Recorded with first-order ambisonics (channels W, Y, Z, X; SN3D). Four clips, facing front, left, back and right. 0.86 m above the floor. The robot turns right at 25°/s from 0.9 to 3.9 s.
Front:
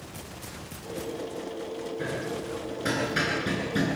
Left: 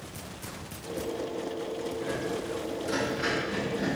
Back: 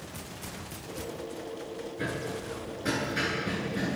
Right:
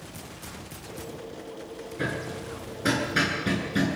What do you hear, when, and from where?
2.0 s hammering: 95° right, 9.5 m; by 4.0 s 45° right, 9.5 m